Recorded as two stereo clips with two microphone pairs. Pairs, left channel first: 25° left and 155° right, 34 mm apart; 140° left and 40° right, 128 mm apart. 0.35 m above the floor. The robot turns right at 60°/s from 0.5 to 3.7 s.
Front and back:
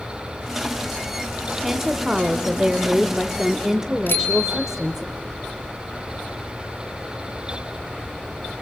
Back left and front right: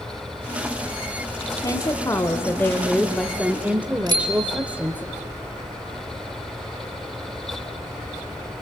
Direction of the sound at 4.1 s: 20° left.